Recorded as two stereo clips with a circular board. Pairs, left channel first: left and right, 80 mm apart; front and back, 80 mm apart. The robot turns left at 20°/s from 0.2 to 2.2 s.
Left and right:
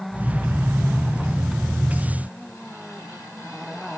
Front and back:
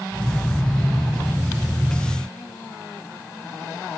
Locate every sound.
Only background noise.